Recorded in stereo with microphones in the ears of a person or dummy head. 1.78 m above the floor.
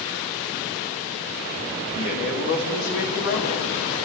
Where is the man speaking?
60° left (ahead or behind), 4.5 m.